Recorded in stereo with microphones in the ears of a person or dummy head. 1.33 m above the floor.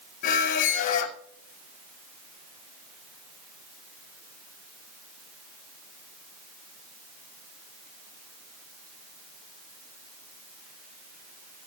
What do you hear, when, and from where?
0.2 s a squeak: 45° left (ahead or behind), 0.7 m